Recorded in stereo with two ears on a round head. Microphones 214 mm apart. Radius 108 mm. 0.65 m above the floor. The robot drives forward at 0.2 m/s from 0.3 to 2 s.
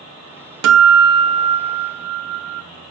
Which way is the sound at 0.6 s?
65° right (ahead or behind).